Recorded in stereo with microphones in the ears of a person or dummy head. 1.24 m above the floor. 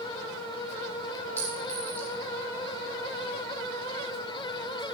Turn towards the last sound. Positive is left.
turn(degrees=10)  # may be behind; listen again after turning